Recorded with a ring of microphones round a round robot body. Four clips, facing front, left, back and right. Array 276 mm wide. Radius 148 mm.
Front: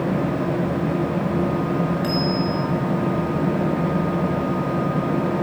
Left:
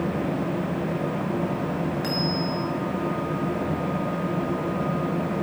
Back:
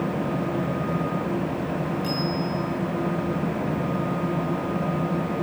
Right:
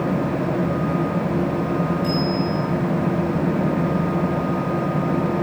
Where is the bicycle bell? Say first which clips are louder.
Right 5 dB, front 5 dB; 55° left, 8 m.